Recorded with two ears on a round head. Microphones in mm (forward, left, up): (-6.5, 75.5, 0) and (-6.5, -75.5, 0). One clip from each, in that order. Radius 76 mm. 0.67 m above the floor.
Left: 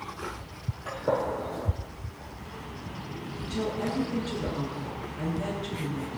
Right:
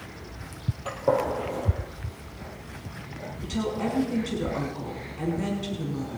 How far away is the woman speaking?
About 6 m.